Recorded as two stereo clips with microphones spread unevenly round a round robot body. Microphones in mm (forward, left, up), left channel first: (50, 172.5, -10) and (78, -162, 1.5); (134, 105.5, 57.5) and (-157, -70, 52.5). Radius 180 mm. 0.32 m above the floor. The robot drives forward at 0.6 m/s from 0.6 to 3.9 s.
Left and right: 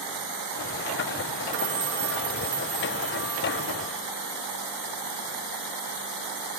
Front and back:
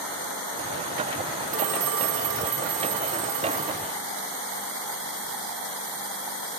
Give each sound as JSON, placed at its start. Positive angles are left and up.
{"t": 1.5, "sound": "a phone ringing", "azimuth_deg": -120, "distance_m": 0.9}